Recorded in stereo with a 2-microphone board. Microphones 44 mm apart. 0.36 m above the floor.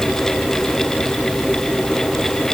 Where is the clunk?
No clunk in this recording.